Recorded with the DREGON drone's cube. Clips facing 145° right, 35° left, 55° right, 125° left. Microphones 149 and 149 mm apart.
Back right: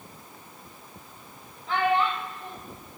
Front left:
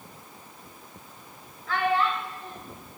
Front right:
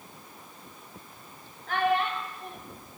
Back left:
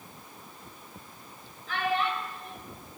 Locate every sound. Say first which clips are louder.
1.7 s a child speaking: back right 1 dB, front right 3 dB; 80° right, 1.6 m